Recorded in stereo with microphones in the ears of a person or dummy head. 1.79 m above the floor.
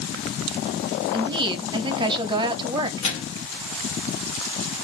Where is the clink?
No clink in this recording.